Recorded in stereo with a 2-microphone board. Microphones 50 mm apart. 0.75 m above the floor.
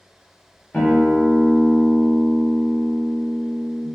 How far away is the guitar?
About 1.3 m.